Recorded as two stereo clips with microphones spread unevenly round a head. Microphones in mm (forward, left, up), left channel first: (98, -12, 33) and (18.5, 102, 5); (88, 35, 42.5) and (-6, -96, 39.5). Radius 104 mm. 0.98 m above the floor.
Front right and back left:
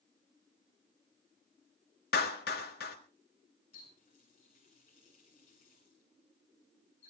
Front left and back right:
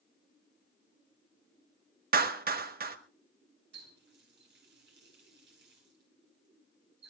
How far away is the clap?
About 1.5 m.